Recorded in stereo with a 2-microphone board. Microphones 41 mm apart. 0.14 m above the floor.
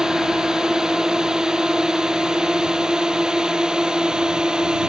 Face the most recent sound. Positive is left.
turn(degrees=-15)  # may be behind; listen again after turning